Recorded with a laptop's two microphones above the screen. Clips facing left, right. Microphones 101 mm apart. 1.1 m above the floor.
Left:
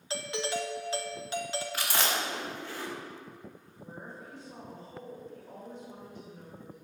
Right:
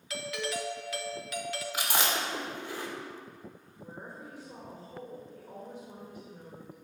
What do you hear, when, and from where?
0.1 s a doorbell: 30° left (ahead or behind), 0.6 m
1.7 s chewing: 15° right (ahead or behind), 1.7 m
3.8 s a woman speaking: 10° right (ahead or behind), 1.6 m